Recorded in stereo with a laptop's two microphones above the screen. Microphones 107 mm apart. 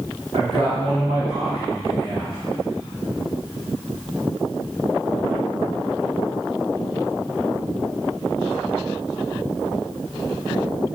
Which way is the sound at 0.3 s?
75° right (ahead or behind).